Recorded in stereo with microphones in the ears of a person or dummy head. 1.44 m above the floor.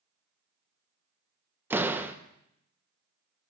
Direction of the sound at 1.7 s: 10° right (ahead or behind).